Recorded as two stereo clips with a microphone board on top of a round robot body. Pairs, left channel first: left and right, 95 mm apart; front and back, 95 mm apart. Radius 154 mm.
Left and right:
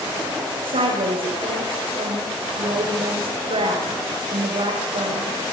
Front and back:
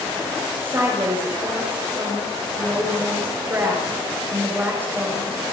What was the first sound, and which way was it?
A woman speaking, 110° right.